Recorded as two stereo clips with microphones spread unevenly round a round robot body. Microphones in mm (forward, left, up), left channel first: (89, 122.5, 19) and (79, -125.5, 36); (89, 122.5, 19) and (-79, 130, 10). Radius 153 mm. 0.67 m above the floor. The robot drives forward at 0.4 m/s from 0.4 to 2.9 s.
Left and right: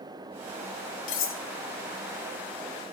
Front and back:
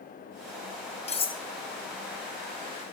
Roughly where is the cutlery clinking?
Ahead left.